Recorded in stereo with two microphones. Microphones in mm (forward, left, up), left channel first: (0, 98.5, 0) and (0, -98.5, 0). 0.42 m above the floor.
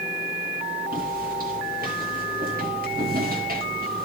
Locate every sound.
0.9 s footsteps: 45° right (ahead or behind), 8 m